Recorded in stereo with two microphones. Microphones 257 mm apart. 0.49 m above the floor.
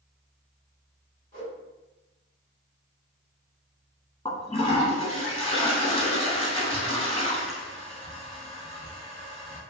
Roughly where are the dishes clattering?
I don't hear dishes clattering.